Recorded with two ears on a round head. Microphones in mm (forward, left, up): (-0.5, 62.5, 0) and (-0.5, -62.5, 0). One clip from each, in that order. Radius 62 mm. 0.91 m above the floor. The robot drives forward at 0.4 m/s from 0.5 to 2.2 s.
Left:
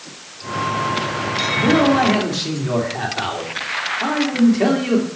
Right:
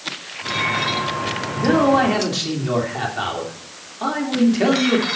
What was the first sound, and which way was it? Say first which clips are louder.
A man speaking: even; 10° right (ahead or behind).